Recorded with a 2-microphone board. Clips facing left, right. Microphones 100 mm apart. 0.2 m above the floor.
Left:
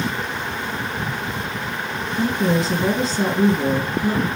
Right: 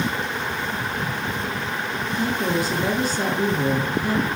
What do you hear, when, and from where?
2.1 s a woman speaking: 25° left (ahead or behind), 2 m